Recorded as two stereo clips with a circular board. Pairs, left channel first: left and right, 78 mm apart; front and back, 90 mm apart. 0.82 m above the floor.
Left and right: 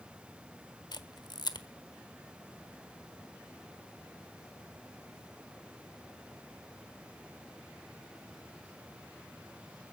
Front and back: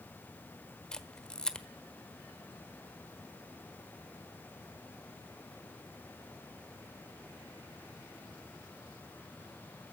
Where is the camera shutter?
80° left, 1.2 m.